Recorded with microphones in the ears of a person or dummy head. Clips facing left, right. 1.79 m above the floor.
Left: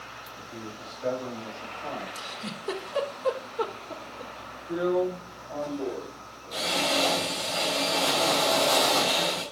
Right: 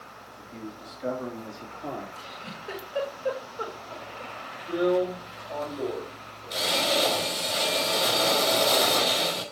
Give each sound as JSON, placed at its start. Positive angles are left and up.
{"t": 0.4, "sound": "a man speaking", "side_deg": -5, "distance_m": 3.5}
{"t": 2.1, "sound": "a giggle", "side_deg": 70, "distance_m": 3.5}
{"t": 4.7, "sound": "a drill", "side_deg": -35, "distance_m": 4.5}